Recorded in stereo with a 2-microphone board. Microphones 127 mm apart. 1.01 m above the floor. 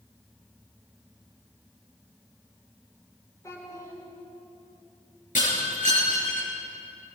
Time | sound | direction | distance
3.4 | a child speaking | 25° left (ahead or behind) | 6 m
5.3 | breaking glass | 80° left | 9 m